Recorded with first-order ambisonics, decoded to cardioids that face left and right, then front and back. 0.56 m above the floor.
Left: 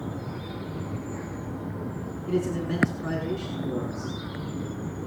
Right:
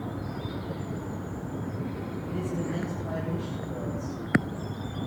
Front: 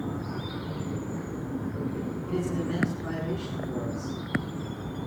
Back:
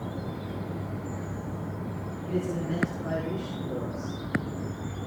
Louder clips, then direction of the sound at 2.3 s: Left 7 dB, back 1 dB; 85° left.